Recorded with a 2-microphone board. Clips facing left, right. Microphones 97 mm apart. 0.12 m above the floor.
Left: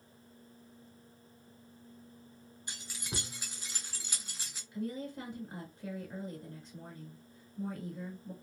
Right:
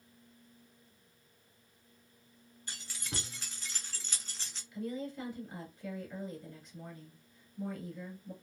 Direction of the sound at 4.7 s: 30° left (ahead or behind).